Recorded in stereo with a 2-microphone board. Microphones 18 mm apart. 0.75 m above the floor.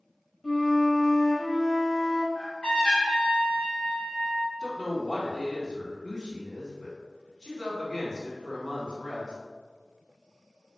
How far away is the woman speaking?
About 1.9 m.